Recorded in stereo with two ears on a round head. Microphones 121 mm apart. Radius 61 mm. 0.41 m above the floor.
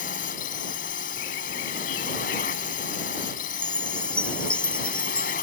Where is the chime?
10° left (ahead or behind).